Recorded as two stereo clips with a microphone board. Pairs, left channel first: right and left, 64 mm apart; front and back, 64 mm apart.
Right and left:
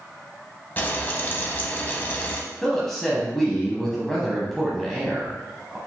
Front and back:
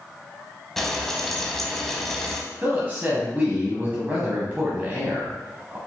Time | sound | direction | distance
0.8 | frying | 80° right | 0.7 m
2.6 | a woman speaking | 170° right | 1.1 m